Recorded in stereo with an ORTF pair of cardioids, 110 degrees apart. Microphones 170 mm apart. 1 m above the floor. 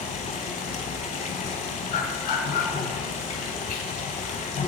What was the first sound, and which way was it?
Running water, 50° left.